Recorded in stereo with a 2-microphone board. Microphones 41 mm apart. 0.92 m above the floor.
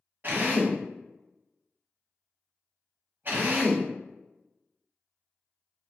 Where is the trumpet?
No trumpet in this recording.